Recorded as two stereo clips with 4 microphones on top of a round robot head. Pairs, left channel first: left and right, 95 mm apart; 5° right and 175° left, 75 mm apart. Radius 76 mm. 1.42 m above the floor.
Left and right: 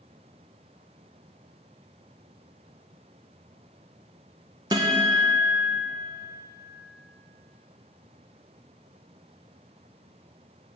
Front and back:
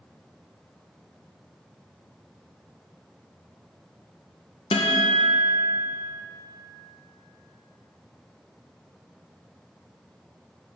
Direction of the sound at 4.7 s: 30° right.